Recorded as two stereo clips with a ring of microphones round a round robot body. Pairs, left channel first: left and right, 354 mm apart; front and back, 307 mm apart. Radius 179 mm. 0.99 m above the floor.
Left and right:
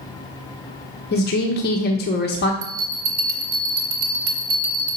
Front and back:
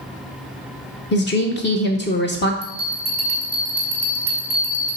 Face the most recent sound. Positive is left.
turn(degrees=-85)